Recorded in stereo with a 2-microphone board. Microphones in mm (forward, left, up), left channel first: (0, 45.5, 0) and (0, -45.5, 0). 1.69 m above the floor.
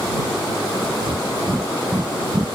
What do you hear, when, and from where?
1.0 s breathing: 60° right (ahead or behind)